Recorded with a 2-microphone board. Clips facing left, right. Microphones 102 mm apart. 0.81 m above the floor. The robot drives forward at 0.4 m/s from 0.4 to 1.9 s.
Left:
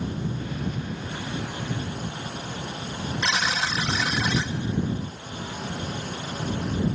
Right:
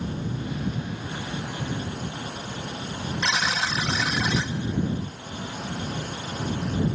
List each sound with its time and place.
3.2 s a buzzer: 5° right (ahead or behind), 1.3 m